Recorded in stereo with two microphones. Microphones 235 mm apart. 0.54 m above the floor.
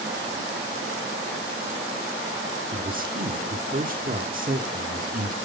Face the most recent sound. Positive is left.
turn(degrees=-35)  # may be behind; listen again after turning